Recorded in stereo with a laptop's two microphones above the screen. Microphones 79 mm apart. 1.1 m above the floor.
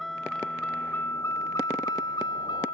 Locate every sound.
0.0 s a vehicle: centre (ahead or behind); by 2.7 s 80° left